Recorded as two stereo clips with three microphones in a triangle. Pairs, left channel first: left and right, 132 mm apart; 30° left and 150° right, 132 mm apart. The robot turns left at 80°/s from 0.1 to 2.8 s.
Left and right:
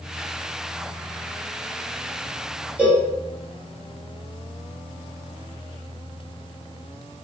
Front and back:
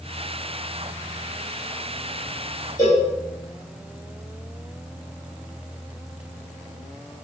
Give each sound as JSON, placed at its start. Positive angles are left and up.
{"t": 2.8, "sound": "a cowbell", "azimuth_deg": -15, "distance_m": 1.3}